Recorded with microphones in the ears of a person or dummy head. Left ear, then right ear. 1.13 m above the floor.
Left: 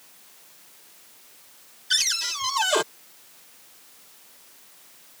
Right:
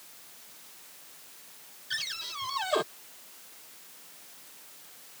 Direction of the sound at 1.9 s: 50° left (ahead or behind).